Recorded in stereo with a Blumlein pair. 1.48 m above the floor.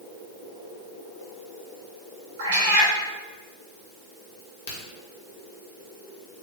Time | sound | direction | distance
2.4 | a cat meowing | 60° right | 2.5 m
4.4 | a crack | 65° left | 2.5 m